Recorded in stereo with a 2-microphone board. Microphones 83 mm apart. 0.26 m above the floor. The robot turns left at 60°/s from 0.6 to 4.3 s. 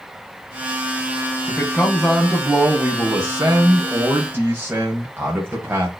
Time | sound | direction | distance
1.5 | a man speaking | 20° left (ahead or behind) | 1.7 m